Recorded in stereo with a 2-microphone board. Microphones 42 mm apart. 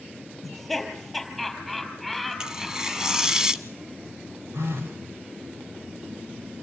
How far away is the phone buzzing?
About 2.5 m.